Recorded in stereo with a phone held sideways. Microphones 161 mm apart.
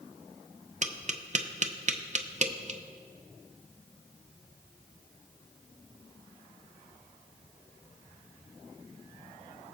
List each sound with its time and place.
0.8 s tapping: 50° right (ahead or behind), 0.6 m